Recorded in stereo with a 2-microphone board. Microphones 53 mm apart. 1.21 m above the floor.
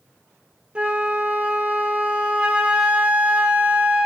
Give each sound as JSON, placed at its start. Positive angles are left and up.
{"t": 0.8, "sound": "a flute", "side_deg": -20, "distance_m": 0.7}